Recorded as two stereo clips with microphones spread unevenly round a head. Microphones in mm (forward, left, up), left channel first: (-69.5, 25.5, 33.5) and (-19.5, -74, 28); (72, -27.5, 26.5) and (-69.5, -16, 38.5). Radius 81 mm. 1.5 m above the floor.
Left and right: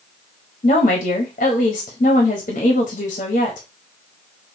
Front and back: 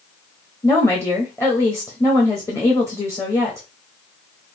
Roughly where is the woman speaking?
Left.